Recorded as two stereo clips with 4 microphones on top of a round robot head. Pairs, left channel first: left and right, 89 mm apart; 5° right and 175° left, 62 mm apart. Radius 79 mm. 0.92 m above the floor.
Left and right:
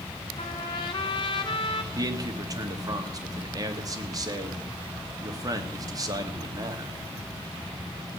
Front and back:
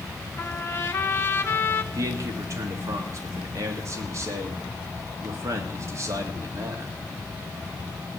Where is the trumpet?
50° left, 1.5 m.